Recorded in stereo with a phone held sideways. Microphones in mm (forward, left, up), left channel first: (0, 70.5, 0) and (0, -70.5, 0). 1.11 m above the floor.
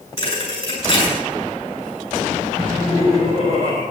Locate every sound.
0.2 s a thud: 45° left (ahead or behind), 7.5 m
2.6 s laughter: 50° left (ahead or behind), 6 m